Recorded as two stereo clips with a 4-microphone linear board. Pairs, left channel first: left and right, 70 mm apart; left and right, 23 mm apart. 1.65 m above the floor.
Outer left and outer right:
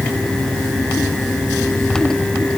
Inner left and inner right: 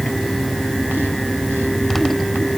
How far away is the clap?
No clap in this recording.